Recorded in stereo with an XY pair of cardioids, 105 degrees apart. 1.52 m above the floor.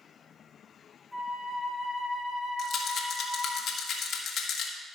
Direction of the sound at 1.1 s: 5° right.